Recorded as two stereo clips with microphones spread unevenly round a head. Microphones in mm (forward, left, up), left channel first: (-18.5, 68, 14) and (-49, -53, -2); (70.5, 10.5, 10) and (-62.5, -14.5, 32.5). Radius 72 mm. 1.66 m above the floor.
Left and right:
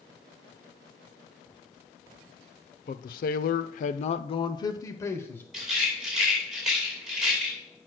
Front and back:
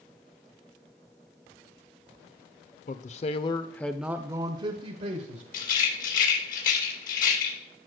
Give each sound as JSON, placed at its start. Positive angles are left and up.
{"t": 2.9, "sound": "a man speaking", "azimuth_deg": 45, "distance_m": 0.7}
{"t": 5.5, "sound": "a rattle", "azimuth_deg": -15, "distance_m": 2.5}